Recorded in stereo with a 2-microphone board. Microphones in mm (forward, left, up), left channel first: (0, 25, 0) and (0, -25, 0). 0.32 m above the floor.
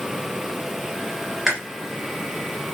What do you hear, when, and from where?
1.5 s chewing: 10° right (ahead or behind), 2.5 m